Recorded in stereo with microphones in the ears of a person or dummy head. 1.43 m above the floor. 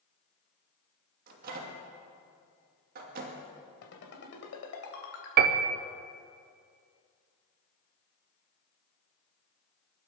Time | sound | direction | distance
1.3 | a microwave | 45° right (ahead or behind) | 2.5 m
3.8 | a ringtone | 65° left (ahead or behind) | 3 m
5.4 | a piano | 50° right (ahead or behind) | 0.9 m